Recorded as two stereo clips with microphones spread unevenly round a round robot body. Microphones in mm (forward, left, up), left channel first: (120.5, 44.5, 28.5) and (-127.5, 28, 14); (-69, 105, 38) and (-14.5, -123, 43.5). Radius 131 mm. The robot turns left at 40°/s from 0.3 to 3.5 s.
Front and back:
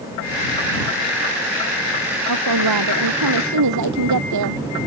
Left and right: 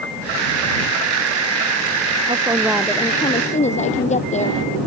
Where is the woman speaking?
145° right; by 4.6 s 165° left.